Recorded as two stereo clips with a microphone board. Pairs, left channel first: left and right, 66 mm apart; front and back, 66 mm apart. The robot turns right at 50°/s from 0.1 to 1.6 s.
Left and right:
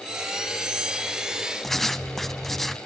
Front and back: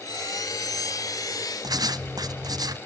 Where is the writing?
175° left, 1.2 m.